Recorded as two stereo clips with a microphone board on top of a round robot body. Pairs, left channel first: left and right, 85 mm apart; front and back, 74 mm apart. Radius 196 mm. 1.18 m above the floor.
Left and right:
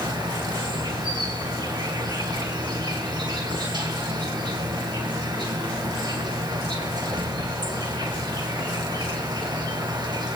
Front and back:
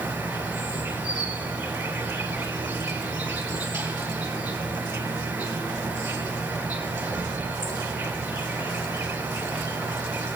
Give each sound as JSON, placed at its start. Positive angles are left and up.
{"t": 0.0, "sound": "an insect", "azimuth_deg": -115, "distance_m": 3.0}